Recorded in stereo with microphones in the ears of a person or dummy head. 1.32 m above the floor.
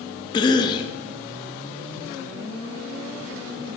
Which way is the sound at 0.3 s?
30° left (ahead or behind).